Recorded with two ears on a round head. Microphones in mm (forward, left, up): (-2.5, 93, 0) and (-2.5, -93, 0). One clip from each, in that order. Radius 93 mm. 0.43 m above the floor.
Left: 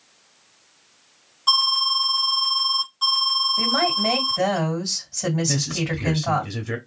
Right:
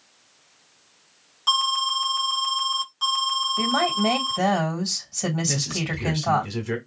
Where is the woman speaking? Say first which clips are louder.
Left 2 dB; 15° right (ahead or behind), 2 m.